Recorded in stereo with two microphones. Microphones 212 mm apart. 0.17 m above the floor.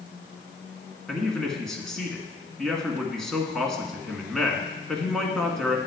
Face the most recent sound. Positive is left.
turn(degrees=0)  # may be behind; listen again after turning